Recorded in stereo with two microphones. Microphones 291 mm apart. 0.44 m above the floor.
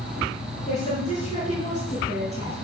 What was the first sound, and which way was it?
A woman speaking, 25° left (ahead or behind).